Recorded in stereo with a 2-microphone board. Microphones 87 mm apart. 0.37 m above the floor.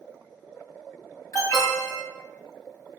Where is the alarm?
45° left (ahead or behind), 1.3 m.